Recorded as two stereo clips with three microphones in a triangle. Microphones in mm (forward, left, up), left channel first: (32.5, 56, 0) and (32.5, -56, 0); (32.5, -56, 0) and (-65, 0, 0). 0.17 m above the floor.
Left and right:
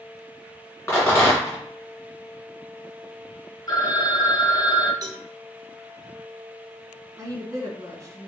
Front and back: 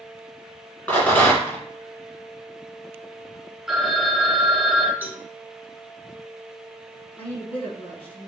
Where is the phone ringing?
65° left, 0.8 m.